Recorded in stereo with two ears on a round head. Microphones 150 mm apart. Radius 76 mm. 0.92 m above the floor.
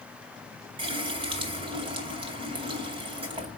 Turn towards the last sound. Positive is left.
turn(degrees=-35)  # may be behind; listen again after turning